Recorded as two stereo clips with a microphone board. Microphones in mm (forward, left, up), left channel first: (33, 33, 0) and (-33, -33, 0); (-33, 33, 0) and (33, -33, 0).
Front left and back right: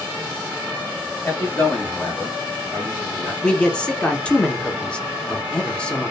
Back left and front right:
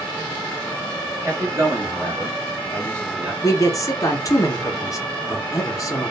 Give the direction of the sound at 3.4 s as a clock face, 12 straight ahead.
8 o'clock.